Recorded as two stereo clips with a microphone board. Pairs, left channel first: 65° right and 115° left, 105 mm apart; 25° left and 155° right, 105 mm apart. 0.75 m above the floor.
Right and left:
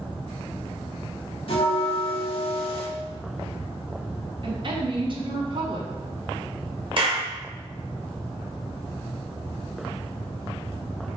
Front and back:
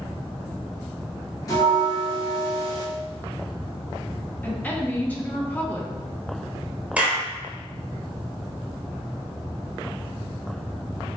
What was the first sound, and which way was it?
A bell, 35° right.